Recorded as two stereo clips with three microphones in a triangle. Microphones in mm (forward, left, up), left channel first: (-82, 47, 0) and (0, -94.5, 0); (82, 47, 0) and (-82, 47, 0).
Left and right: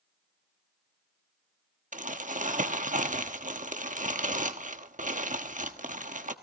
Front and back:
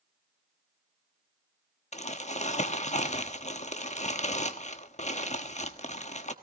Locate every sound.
1.9 s crumpling: 35° right, 1.1 m